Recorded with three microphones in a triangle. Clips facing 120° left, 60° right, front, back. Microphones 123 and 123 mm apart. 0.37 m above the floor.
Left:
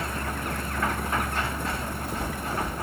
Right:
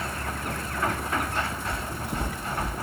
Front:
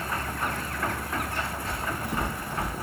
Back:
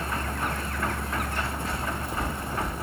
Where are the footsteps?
35° right, 4 m; by 2.7 s 20° right, 4 m.